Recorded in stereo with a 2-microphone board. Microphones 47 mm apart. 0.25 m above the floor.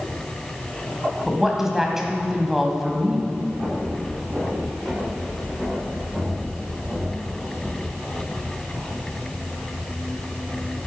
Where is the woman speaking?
10° right (ahead or behind), 1.3 m.